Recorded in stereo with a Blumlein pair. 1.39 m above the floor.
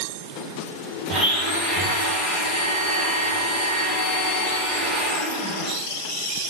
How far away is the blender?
About 1.7 m.